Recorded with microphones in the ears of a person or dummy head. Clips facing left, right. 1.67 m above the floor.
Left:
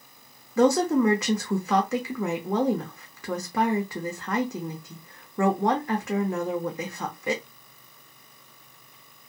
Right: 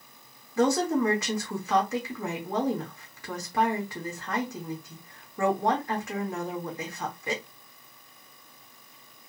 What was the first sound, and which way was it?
A woman speaking, 55° left (ahead or behind).